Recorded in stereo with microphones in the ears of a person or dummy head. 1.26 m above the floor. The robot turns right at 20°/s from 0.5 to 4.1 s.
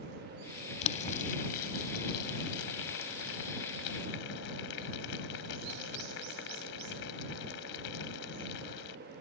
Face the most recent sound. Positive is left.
turn(degrees=65)  # may be behind; listen again after turning